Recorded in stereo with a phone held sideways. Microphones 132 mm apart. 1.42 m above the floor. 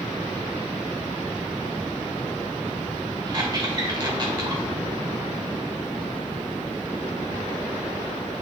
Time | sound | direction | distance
3.3 | a squeak | 30° right (ahead or behind) | 1.6 m